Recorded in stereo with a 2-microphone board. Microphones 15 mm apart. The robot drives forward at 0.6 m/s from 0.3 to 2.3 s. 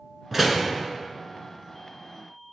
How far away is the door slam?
About 0.9 m.